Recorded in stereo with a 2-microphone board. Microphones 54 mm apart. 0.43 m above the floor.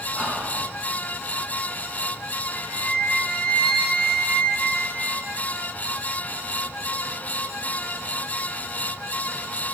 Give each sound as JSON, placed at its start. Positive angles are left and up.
{"t": 0.1, "sound": "whispering", "side_deg": -15, "distance_m": 0.9}
{"t": 2.5, "sound": "a flute", "side_deg": 20, "distance_m": 0.7}